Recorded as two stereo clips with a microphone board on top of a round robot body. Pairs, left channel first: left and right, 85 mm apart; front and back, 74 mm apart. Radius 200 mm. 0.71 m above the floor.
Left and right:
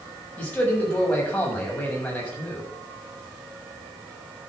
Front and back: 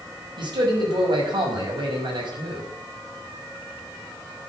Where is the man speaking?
165° left, 6 m.